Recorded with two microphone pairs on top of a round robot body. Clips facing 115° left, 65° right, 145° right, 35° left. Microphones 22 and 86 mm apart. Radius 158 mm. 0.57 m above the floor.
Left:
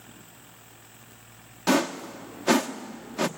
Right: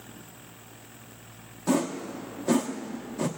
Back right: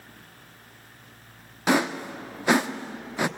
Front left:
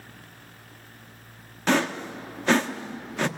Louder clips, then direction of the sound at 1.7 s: Left 3 dB, back right 1 dB; 140° left.